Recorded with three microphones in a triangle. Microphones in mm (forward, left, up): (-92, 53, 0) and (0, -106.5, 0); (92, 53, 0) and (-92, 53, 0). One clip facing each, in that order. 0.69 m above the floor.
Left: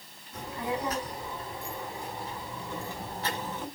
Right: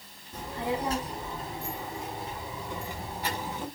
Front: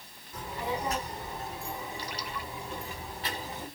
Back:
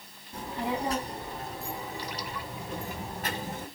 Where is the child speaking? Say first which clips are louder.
Right 2 dB, back 2 dB; 120° right, 5 m; by 3.7 s 140° right, 4.5 m.